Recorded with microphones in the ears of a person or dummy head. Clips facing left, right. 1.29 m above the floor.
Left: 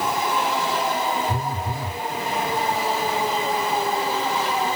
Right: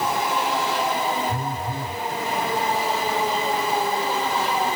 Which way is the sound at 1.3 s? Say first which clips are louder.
Even; 10° left (ahead or behind).